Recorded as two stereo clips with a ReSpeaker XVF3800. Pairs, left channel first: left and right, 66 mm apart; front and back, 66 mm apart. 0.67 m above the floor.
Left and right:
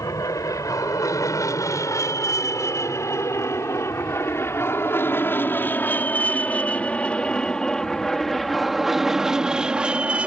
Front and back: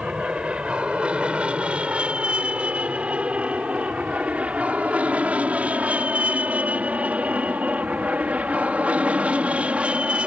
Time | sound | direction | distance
0.0 | an aircraft | 105° left | ?